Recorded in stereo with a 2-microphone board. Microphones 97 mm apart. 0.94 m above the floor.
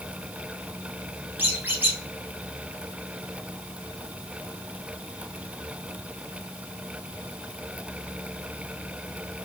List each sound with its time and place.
1.4 s a squeak: 20° right (ahead or behind), 0.9 m